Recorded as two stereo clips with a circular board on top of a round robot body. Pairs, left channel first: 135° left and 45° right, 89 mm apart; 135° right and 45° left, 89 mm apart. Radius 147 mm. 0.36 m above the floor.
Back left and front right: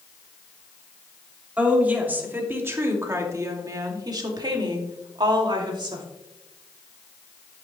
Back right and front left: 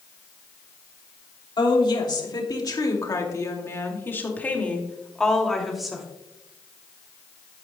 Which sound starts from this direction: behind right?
A woman speaking, at 1.6 s.